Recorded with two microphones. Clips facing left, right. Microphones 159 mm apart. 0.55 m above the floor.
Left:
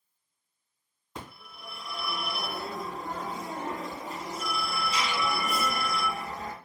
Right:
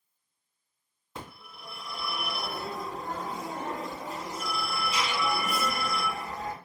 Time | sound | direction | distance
1.1 | a phone ringing | 5° right (ahead or behind) | 2.5 m